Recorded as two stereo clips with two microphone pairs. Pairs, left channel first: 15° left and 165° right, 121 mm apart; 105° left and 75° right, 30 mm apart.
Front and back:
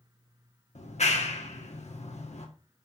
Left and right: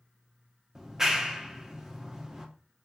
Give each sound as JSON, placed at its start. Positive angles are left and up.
{"t": 0.8, "sound": "a clap", "azimuth_deg": 0, "distance_m": 1.9}